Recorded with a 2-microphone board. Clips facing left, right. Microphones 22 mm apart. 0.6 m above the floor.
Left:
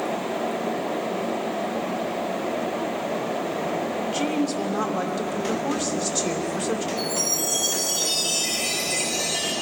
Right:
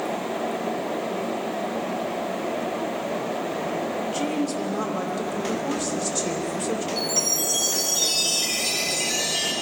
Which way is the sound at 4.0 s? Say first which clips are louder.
Left 2 dB; 10° left (ahead or behind).